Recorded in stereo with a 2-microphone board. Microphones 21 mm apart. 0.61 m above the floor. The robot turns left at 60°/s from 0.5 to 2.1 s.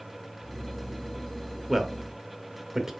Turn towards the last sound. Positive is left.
turn(degrees=-20)  # may be behind; listen again after turning